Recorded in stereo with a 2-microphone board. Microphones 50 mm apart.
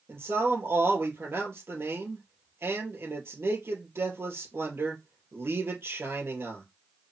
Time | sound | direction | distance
0.1 | a man speaking | 60° right (ahead or behind) | 2.5 m